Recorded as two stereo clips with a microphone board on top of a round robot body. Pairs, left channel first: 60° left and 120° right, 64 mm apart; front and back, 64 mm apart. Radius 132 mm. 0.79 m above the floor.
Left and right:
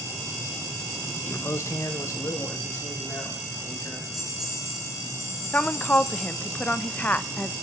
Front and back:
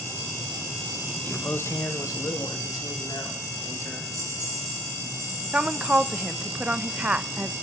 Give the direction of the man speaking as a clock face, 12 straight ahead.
10 o'clock.